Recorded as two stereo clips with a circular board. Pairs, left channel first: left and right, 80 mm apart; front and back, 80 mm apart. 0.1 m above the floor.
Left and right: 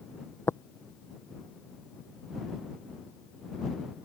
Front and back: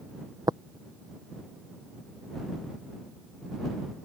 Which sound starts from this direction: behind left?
Tapping, at 0.5 s.